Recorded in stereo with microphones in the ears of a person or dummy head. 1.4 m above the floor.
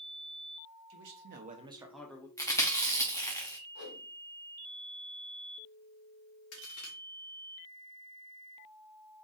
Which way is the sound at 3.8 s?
60° left (ahead or behind).